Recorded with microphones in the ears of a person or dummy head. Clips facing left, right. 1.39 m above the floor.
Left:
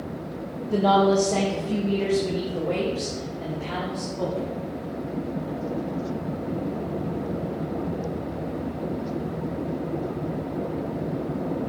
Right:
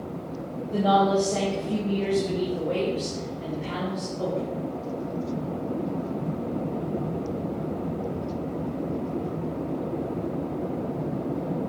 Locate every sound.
0.7 s a woman speaking: 70° left (ahead or behind), 1.3 m; by 4.5 s 60° left (ahead or behind), 4 m